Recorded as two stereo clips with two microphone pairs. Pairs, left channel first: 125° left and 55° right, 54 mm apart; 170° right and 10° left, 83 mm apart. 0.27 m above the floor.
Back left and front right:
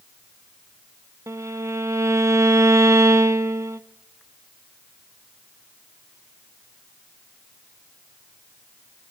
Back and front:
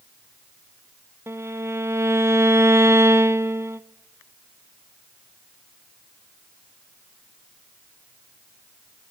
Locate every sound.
1.3 s a violin: 45° right, 0.8 m